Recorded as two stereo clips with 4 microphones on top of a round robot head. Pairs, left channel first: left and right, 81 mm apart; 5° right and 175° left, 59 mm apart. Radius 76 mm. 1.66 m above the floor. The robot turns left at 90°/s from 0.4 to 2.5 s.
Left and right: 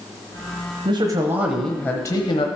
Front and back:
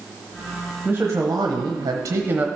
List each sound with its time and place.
0.8 s a man speaking: 100° right, 1.0 m; by 2.5 s 115° left, 1.0 m